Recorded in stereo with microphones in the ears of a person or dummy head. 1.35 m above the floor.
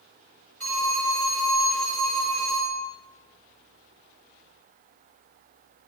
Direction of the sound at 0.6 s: 10° left (ahead or behind).